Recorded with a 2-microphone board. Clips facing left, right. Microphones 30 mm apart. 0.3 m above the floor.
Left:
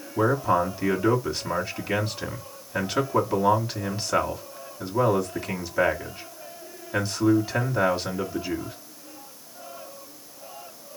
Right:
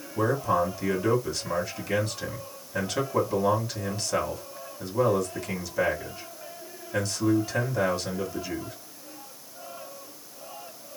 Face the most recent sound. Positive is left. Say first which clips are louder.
# left 3 dB
turn(degrees=20)  # may be behind; listen again after turning